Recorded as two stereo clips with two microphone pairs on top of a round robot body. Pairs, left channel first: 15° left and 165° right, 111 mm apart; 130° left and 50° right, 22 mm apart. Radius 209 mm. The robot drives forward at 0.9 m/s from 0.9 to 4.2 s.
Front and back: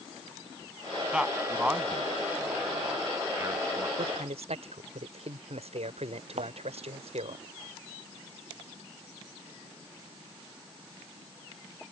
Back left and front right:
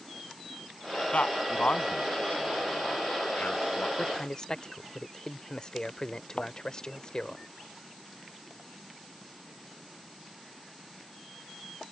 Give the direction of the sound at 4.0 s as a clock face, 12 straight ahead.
6 o'clock.